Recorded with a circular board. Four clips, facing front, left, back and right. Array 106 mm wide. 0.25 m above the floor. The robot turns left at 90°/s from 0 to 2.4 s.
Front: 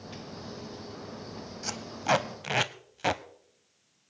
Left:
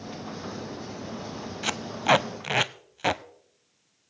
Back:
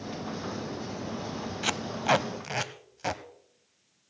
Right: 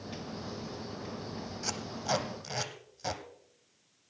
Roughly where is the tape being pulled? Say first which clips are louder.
Left 12 dB, back 2 dB; behind left.